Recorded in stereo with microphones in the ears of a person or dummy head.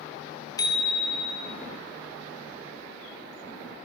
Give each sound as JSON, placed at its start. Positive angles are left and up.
{"t": 0.6, "sound": "a bicycle bell", "side_deg": 25, "distance_m": 2.5}